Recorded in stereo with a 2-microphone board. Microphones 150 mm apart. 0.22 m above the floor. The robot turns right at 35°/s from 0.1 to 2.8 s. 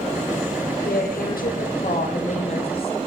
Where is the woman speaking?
75° left, 7 m; by 3.0 s 145° left, 7 m.